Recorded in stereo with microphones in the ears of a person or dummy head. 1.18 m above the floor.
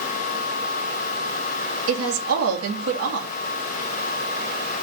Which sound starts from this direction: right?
A woman speaking, at 1.9 s.